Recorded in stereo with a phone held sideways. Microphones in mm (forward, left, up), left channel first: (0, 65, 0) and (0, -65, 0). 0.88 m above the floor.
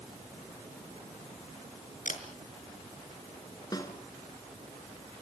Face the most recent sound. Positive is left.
turn(degrees=30)  # may be behind; listen again after turning